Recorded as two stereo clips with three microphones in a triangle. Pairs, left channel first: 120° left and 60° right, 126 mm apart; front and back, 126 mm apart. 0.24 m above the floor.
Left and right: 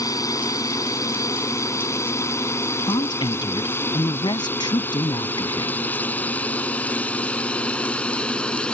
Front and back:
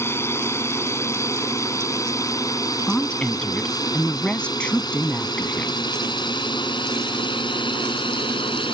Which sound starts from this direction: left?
A woman speaking, at 2.9 s.